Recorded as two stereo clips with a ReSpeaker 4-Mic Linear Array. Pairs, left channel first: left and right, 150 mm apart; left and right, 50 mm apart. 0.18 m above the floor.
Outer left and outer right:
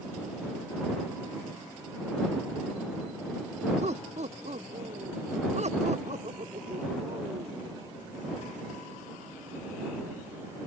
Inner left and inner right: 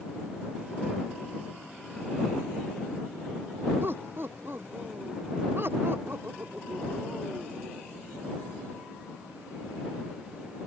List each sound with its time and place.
3.8 s laughter: 50° right (ahead or behind); by 7.8 s 55° right (ahead or behind)